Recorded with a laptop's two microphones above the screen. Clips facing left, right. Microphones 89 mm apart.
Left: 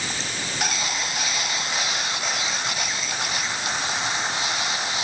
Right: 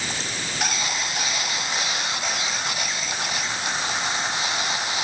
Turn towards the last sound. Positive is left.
No sound to turn to.